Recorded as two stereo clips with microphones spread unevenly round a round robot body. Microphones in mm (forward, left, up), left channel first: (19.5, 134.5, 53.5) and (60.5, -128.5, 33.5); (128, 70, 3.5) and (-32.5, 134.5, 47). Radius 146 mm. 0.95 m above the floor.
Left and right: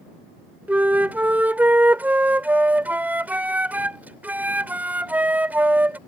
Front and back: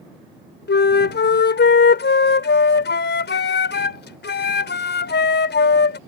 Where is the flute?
5° left.